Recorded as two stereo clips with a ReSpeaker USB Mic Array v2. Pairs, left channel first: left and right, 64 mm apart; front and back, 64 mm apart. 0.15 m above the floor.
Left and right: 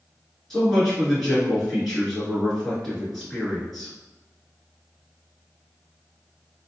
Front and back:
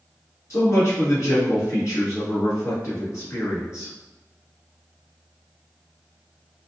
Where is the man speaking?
5° left, 1.8 m.